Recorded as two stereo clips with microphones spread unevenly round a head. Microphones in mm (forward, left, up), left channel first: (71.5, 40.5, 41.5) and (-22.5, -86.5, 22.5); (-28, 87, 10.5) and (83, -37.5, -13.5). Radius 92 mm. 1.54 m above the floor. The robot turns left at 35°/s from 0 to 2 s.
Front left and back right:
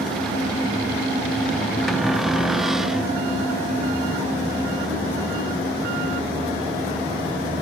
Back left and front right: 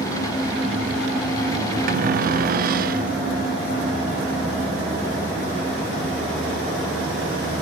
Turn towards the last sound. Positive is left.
turn(degrees=-35)